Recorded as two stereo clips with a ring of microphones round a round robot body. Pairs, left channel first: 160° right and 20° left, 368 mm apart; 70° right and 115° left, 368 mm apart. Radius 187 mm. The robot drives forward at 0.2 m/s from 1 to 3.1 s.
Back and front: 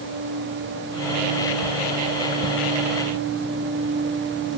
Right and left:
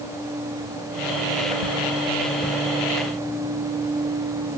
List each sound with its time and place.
Only background noise.